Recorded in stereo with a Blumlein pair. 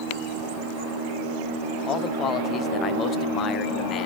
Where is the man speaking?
30° left, 0.6 m.